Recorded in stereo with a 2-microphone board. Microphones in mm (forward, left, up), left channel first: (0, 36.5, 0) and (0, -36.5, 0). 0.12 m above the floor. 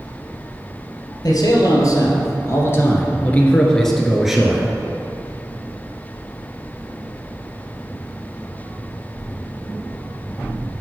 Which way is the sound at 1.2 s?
55° left (ahead or behind).